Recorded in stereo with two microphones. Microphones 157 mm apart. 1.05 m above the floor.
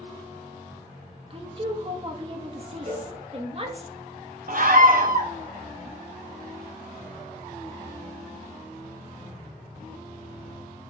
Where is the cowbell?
55° right (ahead or behind), 2.5 m.